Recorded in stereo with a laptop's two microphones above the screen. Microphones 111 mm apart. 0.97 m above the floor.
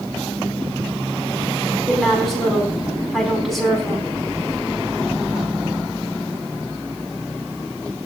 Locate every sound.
1.9 s a woman speaking: centre (ahead or behind), 9.5 m